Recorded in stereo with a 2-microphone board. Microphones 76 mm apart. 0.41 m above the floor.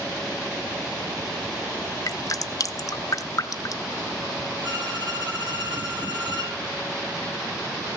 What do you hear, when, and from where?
2.1 s dripping: 50° left (ahead or behind), 0.5 m
4.6 s a violin: 75° right (ahead or behind), 4.5 m